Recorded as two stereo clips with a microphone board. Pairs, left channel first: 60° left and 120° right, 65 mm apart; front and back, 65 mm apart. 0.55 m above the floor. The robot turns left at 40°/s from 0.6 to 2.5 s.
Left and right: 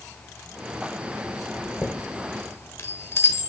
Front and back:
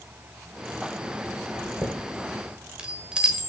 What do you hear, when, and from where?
1.6 s a chime: 145° left, 1.3 m; by 3.5 s 110° left, 1.3 m